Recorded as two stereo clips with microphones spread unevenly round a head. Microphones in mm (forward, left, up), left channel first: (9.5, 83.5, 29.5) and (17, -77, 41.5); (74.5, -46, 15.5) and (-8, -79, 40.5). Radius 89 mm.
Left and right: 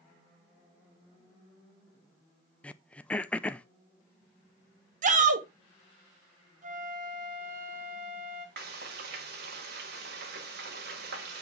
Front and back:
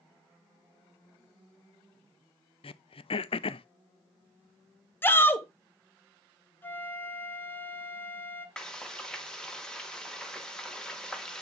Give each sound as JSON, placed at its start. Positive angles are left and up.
{"t": 2.6, "sound": "throat clearing", "azimuth_deg": 10, "distance_m": 0.5}
{"t": 5.0, "sound": "a shout", "azimuth_deg": -45, "distance_m": 1.9}
{"t": 6.6, "sound": "a flute", "azimuth_deg": -50, "distance_m": 1.6}
{"t": 8.6, "sound": "frying", "azimuth_deg": -65, "distance_m": 2.0}